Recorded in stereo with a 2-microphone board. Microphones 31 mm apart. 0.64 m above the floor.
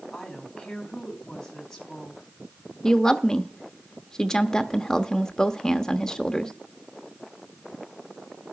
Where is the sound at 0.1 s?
15° left (ahead or behind), 4 m.